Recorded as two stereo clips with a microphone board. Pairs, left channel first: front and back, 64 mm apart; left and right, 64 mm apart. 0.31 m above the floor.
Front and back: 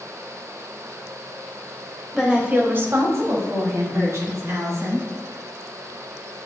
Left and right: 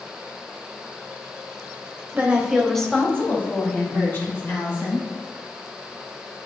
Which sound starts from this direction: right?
A woman speaking, at 2.1 s.